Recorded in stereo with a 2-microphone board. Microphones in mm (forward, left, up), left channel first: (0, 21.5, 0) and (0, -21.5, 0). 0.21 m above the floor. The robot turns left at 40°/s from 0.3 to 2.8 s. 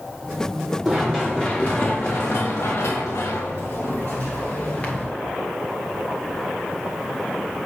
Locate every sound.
0.8 s running footsteps: centre (ahead or behind), 3 m; by 5.1 s 30° left (ahead or behind), 1.5 m